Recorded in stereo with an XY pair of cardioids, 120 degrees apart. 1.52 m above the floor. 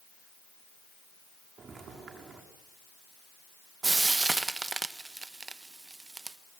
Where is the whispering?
No whispering in this recording.